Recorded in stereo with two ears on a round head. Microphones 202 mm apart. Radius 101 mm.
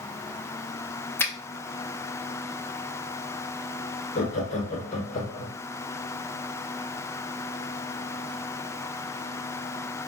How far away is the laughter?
About 1.0 m.